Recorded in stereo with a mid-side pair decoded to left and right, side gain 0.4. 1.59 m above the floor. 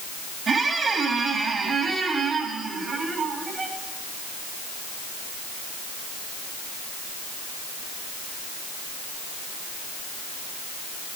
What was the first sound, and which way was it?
A squeak, 55° right.